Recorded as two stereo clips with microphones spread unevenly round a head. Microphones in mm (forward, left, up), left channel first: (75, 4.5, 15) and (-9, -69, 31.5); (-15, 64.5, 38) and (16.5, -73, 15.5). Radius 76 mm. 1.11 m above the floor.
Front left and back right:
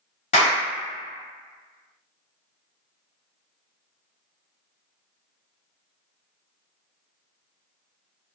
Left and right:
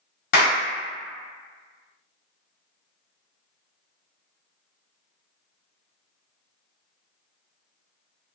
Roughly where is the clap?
Left.